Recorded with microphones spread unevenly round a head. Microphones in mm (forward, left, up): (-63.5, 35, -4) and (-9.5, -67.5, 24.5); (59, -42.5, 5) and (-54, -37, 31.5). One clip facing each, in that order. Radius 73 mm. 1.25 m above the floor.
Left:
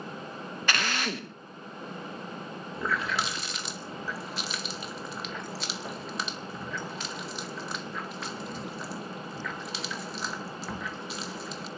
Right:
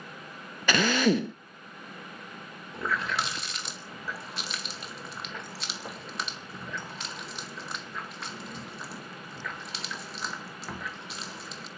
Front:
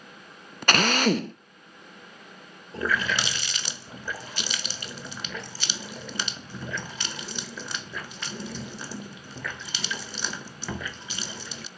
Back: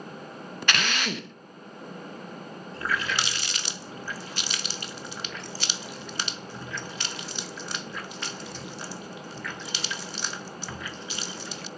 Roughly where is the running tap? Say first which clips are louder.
Even, front 3 dB; ahead.